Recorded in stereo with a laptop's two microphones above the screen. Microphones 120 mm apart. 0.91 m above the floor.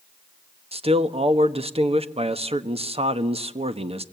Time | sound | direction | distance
0.7 | a man speaking | 55° right (ahead or behind) | 1.2 m